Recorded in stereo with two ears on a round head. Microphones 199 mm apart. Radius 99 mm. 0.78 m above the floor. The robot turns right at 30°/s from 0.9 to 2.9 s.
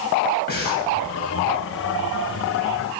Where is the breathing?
50° left (ahead or behind), 3.5 m.